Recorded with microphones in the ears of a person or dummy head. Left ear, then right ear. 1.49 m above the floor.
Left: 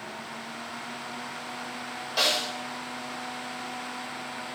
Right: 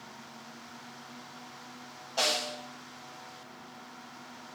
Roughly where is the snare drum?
Left.